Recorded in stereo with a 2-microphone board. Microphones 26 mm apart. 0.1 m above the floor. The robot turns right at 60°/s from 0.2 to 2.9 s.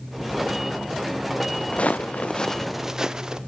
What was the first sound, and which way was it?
Footsteps, 40° left (ahead or behind).